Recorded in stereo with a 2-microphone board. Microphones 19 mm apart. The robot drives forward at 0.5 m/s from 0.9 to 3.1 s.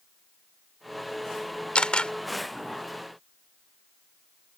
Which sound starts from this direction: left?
A camera shutter, at 1.8 s.